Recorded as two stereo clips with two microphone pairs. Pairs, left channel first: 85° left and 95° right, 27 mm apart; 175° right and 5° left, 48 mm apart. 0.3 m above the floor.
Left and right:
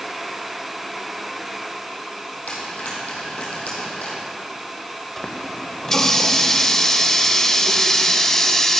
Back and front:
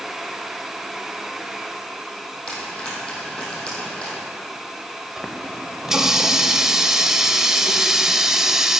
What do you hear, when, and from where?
2.5 s frying: 115° left, 3.5 m
5.2 s a running tap: 45° left, 0.7 m